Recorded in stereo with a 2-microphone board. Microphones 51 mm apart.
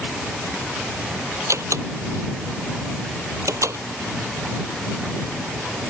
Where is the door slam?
85° right.